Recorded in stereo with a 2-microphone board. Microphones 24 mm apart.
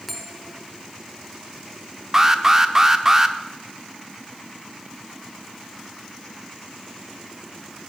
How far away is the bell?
About 1.3 m.